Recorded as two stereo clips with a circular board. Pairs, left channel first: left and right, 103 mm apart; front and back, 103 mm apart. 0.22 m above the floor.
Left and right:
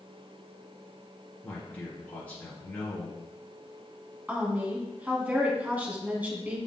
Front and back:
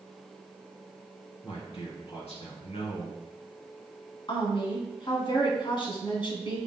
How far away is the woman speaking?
About 1.9 m.